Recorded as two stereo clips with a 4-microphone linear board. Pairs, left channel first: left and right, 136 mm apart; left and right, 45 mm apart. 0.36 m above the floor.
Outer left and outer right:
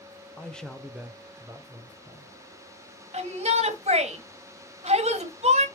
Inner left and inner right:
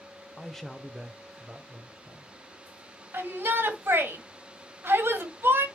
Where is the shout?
55° right (ahead or behind), 2 m.